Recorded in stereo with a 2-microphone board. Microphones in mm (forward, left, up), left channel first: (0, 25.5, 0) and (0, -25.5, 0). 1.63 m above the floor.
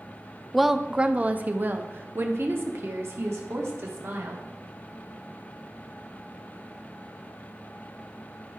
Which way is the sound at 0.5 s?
5° left (ahead or behind).